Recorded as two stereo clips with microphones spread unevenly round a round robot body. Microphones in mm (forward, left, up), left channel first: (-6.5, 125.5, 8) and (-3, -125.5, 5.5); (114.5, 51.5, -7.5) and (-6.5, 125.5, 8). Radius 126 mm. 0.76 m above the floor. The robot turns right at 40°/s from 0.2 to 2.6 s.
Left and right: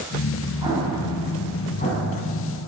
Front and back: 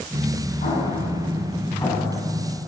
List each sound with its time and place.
0.6 s an explosion: 20° right, 7 m; by 2.2 s 45° left, 7 m